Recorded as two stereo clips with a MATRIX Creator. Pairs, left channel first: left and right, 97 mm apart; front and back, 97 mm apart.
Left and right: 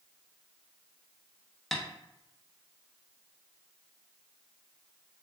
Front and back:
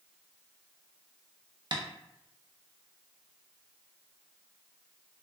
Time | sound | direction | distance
1.7 | tapping | 175° left | 0.6 m